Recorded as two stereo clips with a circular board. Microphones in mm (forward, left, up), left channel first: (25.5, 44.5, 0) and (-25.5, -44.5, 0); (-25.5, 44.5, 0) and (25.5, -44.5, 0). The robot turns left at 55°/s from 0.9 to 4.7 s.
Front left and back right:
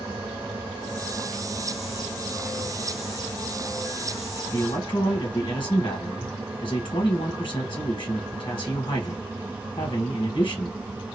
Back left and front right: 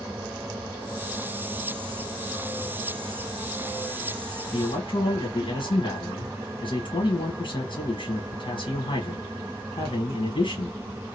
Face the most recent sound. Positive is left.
turn(degrees=95)